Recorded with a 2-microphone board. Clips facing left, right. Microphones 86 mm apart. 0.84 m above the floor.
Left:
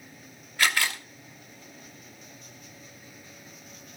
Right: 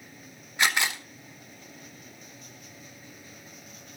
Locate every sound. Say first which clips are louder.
0.6 s a camera shutter: even; 20° right (ahead or behind), 1.0 m